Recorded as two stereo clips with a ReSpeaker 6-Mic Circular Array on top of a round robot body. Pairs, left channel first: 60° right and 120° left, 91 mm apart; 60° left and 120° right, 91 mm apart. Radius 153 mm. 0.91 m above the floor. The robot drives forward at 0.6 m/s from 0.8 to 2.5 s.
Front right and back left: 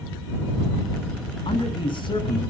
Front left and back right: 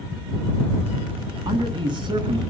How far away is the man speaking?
About 9 m.